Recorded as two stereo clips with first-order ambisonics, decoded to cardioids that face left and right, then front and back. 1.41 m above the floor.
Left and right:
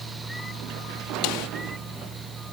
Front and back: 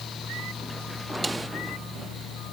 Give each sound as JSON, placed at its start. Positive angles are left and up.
{"t": 1.2, "sound": "a snare drum", "azimuth_deg": 105}